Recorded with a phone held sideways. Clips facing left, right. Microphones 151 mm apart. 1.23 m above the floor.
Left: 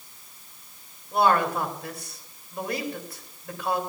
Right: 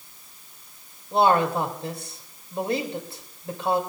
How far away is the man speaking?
About 2.5 m.